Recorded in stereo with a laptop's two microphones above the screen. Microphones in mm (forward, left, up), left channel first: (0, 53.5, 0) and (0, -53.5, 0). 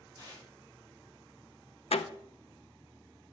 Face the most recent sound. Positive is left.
turn(degrees=75)  # may be behind; listen again after turning